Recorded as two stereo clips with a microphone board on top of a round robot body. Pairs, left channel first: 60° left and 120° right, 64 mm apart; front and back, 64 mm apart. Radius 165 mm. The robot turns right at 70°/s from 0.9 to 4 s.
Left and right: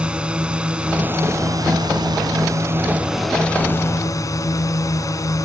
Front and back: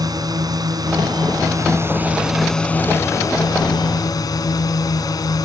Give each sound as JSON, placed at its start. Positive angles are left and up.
{"t": 0.0, "sound": "a drone", "azimuth_deg": 165}